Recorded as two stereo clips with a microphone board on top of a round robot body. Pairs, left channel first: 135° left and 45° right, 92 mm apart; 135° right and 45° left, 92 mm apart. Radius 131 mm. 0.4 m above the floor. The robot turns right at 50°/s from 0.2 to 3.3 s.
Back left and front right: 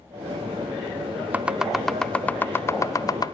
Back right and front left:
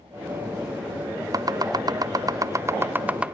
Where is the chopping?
20° left, 0.8 m; by 3.3 s 120° left, 0.8 m.